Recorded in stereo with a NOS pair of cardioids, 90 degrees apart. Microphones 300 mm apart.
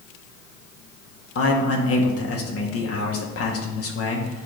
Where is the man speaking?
50° left, 1.9 m.